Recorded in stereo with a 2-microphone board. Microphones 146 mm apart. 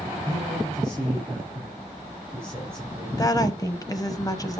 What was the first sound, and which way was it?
A man speaking, 15° right (ahead or behind).